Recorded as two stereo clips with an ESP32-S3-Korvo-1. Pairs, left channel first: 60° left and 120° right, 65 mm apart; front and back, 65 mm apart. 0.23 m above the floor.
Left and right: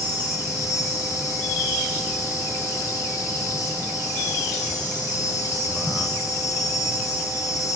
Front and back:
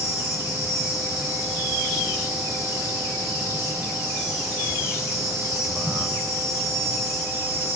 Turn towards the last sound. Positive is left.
turn(degrees=5)